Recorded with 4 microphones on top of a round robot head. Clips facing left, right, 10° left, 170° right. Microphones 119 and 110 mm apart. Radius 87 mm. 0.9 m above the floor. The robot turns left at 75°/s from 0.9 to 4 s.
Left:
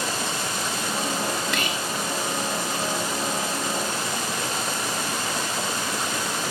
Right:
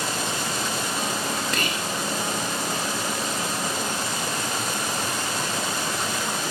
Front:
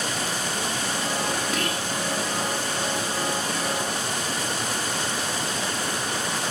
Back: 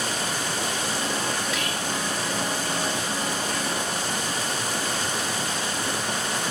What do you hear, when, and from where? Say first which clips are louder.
1.5 s whispering: even, front 1 dB; 40° right, 1.4 m; by 1.9 s 70° right, 1.4 m